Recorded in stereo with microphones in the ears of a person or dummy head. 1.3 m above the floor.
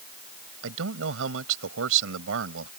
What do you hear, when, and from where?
0.6 s a man speaking: 70° right (ahead or behind)